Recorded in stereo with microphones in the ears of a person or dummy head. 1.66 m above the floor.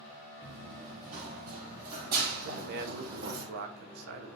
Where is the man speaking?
60° right (ahead or behind), 1.7 m.